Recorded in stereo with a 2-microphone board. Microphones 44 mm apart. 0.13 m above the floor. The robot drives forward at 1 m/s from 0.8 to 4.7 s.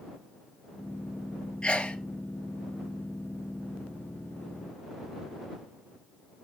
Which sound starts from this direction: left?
A sneeze, at 1.6 s.